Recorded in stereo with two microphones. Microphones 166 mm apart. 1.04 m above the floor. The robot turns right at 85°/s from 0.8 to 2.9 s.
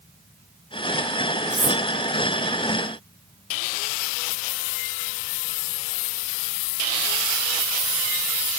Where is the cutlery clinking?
25° right (ahead or behind), 1.4 m; by 1.8 s 50° right (ahead or behind), 1.4 m.